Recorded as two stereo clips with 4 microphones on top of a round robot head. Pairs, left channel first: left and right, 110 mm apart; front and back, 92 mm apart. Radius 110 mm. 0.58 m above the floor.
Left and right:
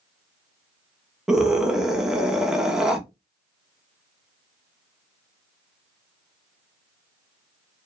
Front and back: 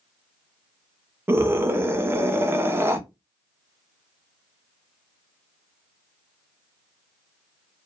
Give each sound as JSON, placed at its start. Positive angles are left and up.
{"t": 1.3, "sound": "a scream", "azimuth_deg": -170, "distance_m": 0.6}